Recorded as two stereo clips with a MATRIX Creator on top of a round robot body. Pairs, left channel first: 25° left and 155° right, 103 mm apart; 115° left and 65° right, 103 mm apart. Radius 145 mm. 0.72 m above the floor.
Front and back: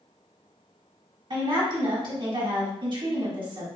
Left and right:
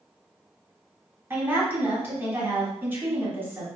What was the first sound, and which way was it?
A woman speaking, 135° right.